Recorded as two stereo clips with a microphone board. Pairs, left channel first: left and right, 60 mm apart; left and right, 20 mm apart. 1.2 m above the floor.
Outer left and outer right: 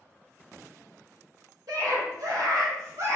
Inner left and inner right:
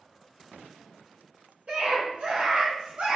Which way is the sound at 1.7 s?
85° right.